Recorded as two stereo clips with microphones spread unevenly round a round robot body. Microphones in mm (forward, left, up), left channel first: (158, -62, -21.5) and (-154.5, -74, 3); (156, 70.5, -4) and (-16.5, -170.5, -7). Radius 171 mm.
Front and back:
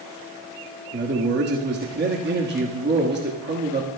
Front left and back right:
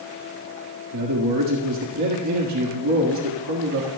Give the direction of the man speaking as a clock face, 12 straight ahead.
4 o'clock.